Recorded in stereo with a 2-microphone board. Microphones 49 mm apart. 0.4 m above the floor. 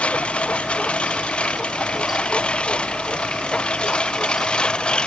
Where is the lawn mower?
25° left (ahead or behind); by 5.1 s 20° left (ahead or behind).